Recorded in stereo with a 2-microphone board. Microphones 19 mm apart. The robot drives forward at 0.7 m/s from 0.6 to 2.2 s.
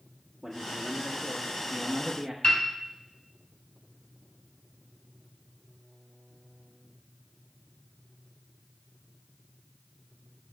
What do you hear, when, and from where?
0.4 s a man speaking: 20° right (ahead or behind), 1.5 m; by 2.3 s 30° right (ahead or behind), 1.0 m
2.4 s a piano: 40° left (ahead or behind), 2.5 m